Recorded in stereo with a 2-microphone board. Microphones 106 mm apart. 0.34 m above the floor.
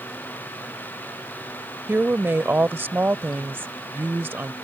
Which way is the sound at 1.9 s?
20° right (ahead or behind).